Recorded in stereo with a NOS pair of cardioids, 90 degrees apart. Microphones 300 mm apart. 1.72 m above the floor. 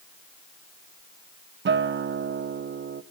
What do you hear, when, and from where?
1.6 s a guitar: 40° right, 1.2 m